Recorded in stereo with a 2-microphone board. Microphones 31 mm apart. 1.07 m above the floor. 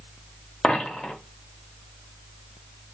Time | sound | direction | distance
0.6 | a dropped coin | 40° left (ahead or behind) | 0.7 m